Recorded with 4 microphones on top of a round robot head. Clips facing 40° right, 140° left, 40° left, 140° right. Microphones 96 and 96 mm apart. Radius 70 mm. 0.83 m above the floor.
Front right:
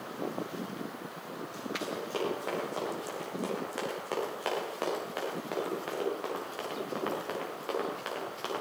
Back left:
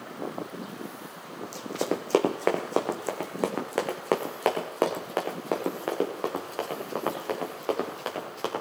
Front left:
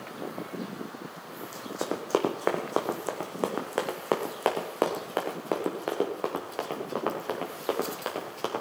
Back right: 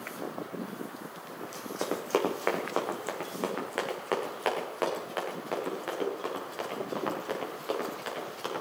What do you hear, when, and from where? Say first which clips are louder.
1.4 s running footsteps: back left 8 dB, front left 1 dB; 125° left, 1.7 m; by 8.6 s 85° left, 4.5 m